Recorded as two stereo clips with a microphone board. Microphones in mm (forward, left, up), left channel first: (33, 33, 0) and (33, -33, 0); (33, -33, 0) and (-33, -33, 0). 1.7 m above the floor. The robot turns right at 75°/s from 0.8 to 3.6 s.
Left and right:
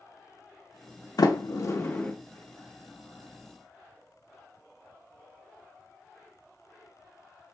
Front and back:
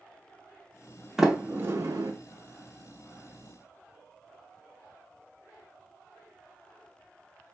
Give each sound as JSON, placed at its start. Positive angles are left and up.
{"t": 1.2, "sound": "a sliding door", "azimuth_deg": 90, "distance_m": 0.6}